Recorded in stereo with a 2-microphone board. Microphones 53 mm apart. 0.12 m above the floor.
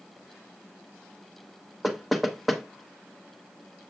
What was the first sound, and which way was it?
Knocking, centre (ahead or behind).